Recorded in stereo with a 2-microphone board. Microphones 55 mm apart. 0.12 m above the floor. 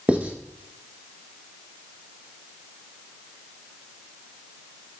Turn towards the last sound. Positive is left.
turn(degrees=-25)  # may be behind; listen again after turning